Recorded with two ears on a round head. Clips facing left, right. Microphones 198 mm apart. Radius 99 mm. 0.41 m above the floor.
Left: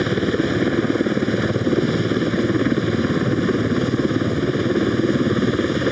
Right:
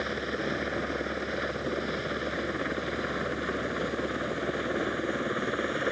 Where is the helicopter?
65° left (ahead or behind); by 5.9 s 55° left (ahead or behind).